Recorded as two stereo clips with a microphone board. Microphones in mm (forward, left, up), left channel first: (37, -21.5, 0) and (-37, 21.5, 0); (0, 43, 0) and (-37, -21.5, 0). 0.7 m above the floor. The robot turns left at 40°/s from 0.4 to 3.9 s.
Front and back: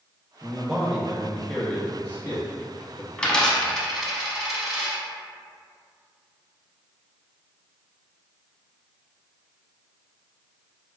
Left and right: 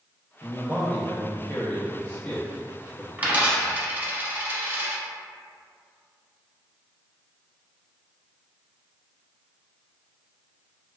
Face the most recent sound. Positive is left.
turn(degrees=-120)